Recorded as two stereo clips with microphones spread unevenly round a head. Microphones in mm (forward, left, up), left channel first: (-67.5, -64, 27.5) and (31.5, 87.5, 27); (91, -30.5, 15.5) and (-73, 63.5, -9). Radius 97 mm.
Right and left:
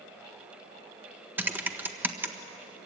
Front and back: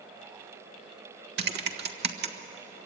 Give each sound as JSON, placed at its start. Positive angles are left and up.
{"t": 1.4, "sound": "typing on a keyboard", "azimuth_deg": 135, "distance_m": 1.4}